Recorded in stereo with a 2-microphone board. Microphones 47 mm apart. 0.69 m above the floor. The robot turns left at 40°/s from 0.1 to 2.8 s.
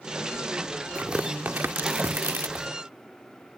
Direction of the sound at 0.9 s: 30° right (ahead or behind).